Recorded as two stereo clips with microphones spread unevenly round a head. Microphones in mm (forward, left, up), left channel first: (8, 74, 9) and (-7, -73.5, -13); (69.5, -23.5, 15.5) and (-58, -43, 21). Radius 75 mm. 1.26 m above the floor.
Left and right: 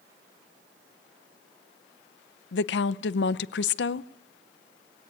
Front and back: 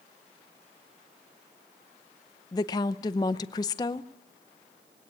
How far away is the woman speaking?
About 0.7 m.